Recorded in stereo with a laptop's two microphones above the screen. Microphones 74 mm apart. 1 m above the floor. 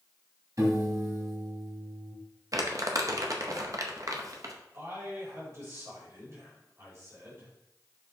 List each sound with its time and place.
0.6 s a piano: 55° right (ahead or behind), 2 m
2.5 s crumpling: 50° right (ahead or behind), 0.8 m
4.7 s a man speaking: 45° right (ahead or behind), 2.5 m